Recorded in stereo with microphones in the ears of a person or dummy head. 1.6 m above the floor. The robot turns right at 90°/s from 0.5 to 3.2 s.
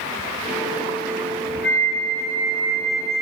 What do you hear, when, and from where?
1.6 s a flute: 65° left, 1.4 m; by 3.2 s 155° right, 1.4 m